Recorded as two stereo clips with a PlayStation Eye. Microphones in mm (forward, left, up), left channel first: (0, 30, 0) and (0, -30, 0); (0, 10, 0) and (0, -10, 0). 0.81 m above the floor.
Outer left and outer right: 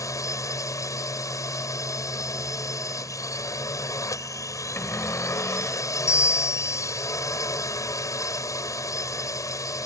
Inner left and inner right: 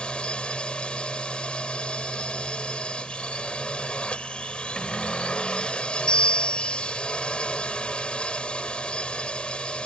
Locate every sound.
0.0 s a drone: 60° left (ahead or behind)
4.8 s a cupboard door: 40° left (ahead or behind)
6.1 s a bell: 60° left (ahead or behind)